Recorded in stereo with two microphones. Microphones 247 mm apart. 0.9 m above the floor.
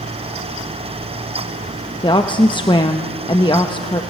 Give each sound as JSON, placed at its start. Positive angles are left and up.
{"t": 2.0, "sound": "a woman speaking", "side_deg": 20, "distance_m": 0.8}